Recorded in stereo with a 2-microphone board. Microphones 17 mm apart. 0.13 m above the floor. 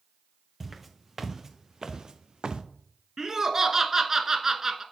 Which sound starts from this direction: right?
Laughter, at 3.2 s.